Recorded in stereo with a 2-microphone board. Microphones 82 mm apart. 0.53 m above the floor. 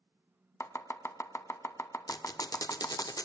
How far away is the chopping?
About 0.6 m.